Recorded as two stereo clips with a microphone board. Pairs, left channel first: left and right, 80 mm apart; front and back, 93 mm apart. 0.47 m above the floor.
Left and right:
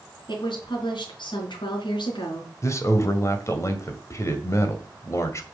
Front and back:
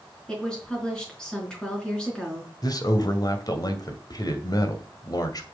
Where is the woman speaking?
80° left, 5 m.